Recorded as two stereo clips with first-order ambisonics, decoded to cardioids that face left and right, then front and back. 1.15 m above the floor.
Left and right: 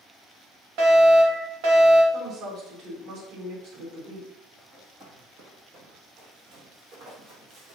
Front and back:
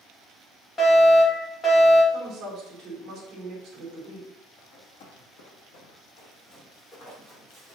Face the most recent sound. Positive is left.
turn(degrees=-70)